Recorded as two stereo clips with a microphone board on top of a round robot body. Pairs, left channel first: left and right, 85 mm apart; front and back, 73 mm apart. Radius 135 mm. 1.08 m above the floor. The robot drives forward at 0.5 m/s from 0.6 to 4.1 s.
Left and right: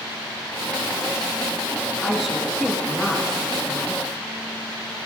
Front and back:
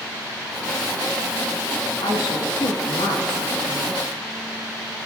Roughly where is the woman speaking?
Ahead.